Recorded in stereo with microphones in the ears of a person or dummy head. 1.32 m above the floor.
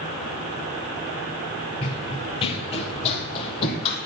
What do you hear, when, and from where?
1.8 s running footsteps: 30° left (ahead or behind), 1.5 m